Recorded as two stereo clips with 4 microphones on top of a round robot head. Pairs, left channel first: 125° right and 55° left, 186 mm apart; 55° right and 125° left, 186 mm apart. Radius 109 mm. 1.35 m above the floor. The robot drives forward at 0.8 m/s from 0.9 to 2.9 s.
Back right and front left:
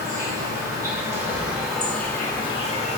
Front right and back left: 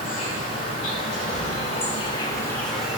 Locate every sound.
0.0 s an insect: 15° right, 1.4 m; by 3.0 s 150° right, 1.0 m